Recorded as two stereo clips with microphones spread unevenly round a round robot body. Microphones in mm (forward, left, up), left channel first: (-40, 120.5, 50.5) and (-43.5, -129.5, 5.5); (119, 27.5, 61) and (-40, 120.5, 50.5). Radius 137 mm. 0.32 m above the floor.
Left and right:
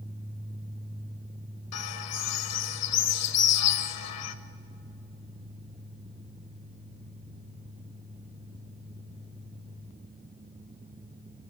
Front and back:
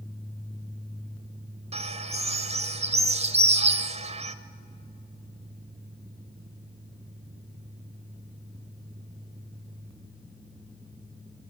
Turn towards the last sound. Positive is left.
turn(degrees=100)